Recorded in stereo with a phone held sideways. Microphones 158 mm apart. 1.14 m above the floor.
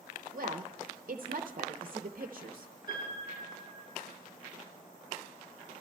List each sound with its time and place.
0.3 s a woman speaking: 65° right (ahead or behind), 0.7 m
2.9 s a piano: 70° left (ahead or behind), 8.5 m